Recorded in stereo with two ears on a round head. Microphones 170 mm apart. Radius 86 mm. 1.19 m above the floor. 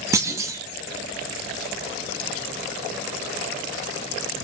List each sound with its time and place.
0.1 s a clunk: 15° right (ahead or behind), 2 m